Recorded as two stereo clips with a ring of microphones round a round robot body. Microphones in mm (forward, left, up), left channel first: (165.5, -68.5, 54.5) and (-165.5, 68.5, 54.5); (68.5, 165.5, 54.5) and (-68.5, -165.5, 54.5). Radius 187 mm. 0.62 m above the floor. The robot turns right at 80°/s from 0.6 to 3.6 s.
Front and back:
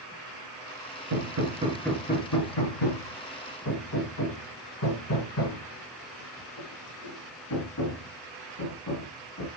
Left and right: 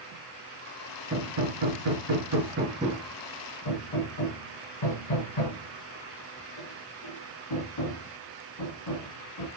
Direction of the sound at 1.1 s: 170° right.